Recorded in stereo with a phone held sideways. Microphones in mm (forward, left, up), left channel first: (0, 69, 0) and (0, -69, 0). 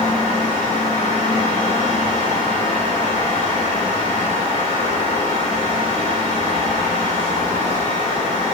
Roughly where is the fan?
Left.